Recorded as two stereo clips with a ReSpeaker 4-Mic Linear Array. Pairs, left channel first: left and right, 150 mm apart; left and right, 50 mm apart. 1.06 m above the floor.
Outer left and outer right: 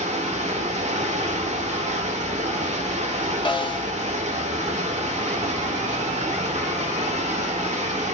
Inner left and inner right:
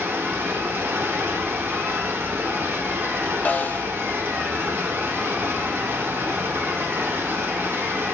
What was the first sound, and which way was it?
Running water, 55° right (ahead or behind).